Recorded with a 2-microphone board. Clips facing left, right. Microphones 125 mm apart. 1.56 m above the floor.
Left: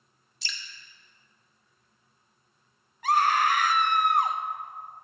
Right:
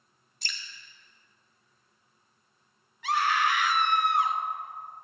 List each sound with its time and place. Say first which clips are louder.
0.4 s dripping: left 1 dB; 50° right (ahead or behind), 1.4 m
3.0 s a scream: left 3 dB; 45° left (ahead or behind), 1.2 m